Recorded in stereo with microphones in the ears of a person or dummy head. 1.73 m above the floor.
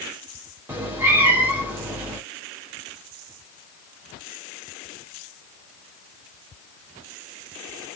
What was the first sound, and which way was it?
A cat meowing, 15° right (ahead or behind).